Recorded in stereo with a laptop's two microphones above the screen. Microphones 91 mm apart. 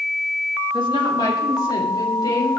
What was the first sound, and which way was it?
A woman speaking, 55° left (ahead or behind).